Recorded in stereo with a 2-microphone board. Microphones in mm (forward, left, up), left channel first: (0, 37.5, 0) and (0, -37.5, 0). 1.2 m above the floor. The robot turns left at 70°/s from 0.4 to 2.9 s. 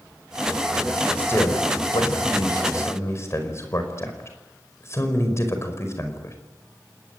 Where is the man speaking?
20° left (ahead or behind), 5 m; by 6.3 s 40° left (ahead or behind), 5 m.